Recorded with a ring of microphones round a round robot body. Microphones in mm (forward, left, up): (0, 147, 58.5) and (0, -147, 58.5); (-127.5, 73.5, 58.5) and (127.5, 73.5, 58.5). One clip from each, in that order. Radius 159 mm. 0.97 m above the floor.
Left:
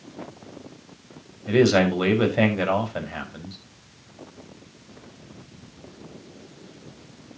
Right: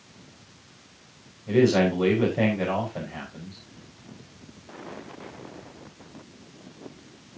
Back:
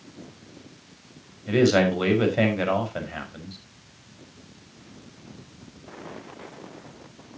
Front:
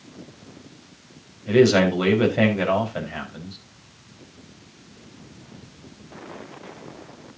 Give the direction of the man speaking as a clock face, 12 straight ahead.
9 o'clock.